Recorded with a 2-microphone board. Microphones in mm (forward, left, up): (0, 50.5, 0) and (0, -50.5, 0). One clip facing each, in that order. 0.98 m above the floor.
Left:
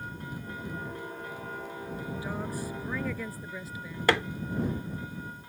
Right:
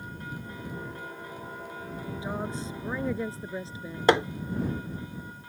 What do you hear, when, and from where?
2.2 s a woman speaking: 20° right (ahead or behind); by 4.0 s 30° right (ahead or behind)
4.1 s hammering: 20° right (ahead or behind)